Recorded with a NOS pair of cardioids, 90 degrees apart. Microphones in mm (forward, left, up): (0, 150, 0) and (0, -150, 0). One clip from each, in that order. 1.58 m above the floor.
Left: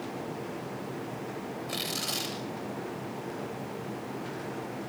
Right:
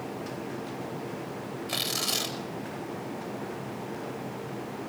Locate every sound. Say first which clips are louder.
1.7 s tearing paper: right 4 dB; 25° right, 9 m